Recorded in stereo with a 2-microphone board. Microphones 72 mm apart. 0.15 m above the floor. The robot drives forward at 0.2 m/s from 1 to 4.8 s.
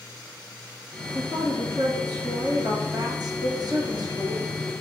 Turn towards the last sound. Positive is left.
turn(degrees=-60)  # may be behind; listen again after turning